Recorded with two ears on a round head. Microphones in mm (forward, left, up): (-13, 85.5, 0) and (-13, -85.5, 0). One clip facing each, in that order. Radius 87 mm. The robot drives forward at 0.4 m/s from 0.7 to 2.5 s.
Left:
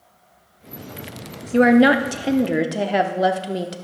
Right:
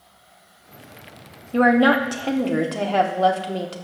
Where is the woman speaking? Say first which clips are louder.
Left 3 dB; 25° left (ahead or behind), 0.6 m; by 3.8 s 15° left (ahead or behind), 0.8 m.